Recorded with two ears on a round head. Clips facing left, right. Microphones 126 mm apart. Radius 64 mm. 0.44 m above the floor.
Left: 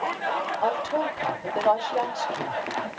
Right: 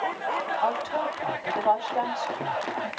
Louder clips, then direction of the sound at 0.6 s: Left 3 dB; 45° left (ahead or behind).